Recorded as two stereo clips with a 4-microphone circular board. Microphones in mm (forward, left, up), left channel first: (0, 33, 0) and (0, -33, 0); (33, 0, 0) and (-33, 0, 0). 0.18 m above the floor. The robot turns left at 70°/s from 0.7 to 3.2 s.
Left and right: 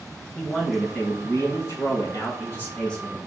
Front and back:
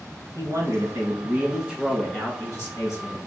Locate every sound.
0.3 s a man speaking: 165° left, 2.0 m; by 3.2 s 10° right, 2.0 m